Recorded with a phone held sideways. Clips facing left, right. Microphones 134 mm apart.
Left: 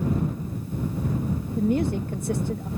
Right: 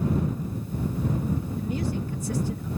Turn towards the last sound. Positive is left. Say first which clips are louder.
# left 6 dB
turn(degrees=60)  # may be behind; listen again after turning